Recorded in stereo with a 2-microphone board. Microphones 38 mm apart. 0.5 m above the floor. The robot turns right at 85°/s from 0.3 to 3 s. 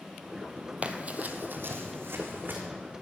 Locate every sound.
0.8 s running footsteps: 35° right (ahead or behind), 1.0 m; by 2.6 s 45° right (ahead or behind), 2.5 m